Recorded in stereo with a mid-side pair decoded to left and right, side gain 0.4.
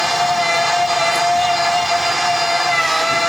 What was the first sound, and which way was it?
A machine running, 10° right.